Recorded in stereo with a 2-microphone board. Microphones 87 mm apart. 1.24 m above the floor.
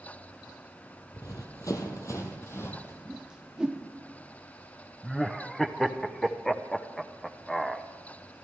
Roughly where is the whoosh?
Centre.